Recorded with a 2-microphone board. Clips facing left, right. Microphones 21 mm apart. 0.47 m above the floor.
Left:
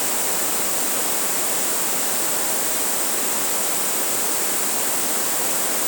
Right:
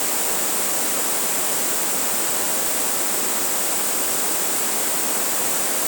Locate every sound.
Only background noise.